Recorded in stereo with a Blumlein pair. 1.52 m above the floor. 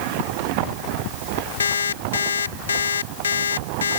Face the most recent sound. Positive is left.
turn(degrees=65)